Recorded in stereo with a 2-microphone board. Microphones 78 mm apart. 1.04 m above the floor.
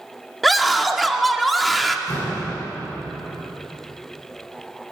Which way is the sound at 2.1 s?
65° left (ahead or behind).